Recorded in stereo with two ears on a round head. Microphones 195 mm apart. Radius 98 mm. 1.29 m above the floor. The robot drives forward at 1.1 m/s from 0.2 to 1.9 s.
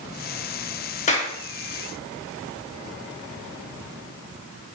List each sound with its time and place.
1.1 s a clap: 35° left (ahead or behind), 2 m; by 1.3 s 40° left (ahead or behind), 1.8 m